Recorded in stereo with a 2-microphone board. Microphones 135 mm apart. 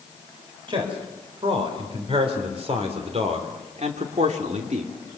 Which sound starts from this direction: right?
A man speaking, at 0.7 s.